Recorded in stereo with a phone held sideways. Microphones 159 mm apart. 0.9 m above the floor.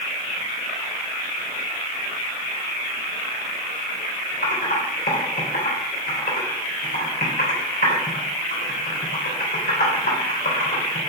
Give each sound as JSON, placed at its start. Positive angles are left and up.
{"t": 4.4, "sound": "typing on a keyboard", "side_deg": 75, "distance_m": 3.5}